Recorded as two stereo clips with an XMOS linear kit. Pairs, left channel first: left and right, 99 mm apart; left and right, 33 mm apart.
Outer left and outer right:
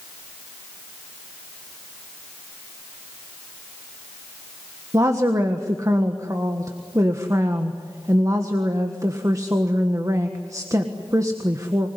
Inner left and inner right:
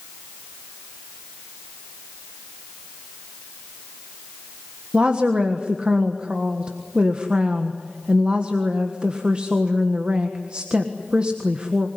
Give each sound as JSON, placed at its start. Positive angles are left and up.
{"t": 4.9, "sound": "a woman speaking", "side_deg": -35, "distance_m": 1.5}